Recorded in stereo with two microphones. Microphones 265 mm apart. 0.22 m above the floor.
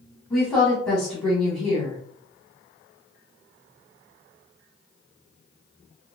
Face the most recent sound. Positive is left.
turn(degrees=0)  # may be behind; listen again after turning